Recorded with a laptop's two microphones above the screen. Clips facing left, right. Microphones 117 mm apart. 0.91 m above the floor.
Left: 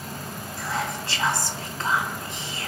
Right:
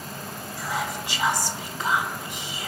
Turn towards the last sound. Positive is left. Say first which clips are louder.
# even
turn(degrees=0)  # may be behind; listen again after turning